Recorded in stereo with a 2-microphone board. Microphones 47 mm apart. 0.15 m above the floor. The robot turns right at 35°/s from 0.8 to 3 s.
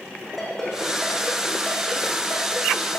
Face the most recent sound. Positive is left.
turn(degrees=75)  # may be behind; listen again after turning